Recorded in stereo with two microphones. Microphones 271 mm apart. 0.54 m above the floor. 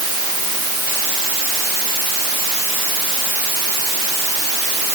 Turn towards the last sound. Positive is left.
No sound to turn to.